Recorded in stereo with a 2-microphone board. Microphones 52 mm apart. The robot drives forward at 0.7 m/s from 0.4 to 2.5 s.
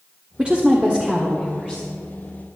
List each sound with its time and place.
0.4 s a woman speaking: 25° right (ahead or behind), 1.1 m; by 1.8 s 15° right (ahead or behind), 2.0 m